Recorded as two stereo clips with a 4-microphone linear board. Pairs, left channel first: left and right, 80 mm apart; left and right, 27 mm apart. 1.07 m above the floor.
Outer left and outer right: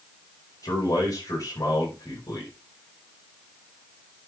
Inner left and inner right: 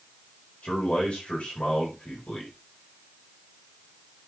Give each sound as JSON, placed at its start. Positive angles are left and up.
{"t": 0.6, "sound": "a man speaking", "side_deg": 50, "distance_m": 5.0}